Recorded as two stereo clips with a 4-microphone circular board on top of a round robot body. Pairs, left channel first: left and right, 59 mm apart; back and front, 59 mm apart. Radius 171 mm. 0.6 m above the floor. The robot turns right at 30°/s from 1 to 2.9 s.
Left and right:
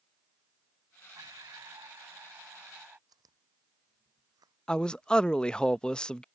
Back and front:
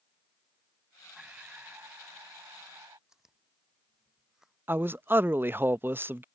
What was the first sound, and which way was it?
Breathing, 75° right.